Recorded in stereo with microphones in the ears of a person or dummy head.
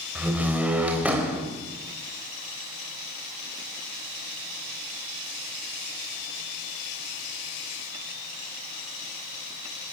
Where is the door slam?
5° right (ahead or behind), 3.5 m.